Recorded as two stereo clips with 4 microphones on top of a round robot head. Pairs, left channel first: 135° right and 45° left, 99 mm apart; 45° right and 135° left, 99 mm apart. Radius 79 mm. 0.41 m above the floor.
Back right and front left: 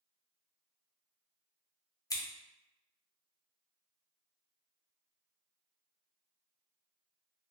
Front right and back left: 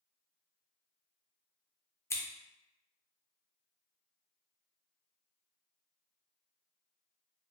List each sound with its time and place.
2.1 s scissors: 95° right, 0.7 m